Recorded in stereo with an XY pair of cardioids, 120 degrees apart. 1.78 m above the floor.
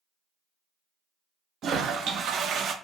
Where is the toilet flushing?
55° right, 0.5 m.